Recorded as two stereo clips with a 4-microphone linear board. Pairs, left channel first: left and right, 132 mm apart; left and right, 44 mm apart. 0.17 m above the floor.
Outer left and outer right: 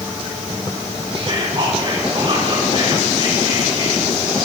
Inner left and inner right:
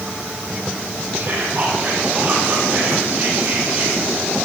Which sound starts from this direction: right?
Whispering, at 1.1 s.